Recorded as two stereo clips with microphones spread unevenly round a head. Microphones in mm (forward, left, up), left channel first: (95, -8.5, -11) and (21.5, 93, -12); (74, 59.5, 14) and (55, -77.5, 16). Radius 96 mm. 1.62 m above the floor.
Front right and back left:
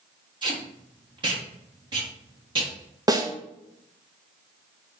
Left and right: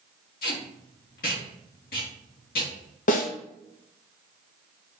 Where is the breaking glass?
I don't hear breaking glass.